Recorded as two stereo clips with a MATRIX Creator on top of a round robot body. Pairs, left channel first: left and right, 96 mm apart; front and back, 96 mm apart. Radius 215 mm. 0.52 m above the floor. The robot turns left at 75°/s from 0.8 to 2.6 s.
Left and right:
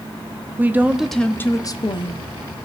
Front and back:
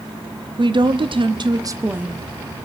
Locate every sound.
0.6 s a woman speaking: 160° right, 1.1 m; by 2.3 s 90° left, 1.1 m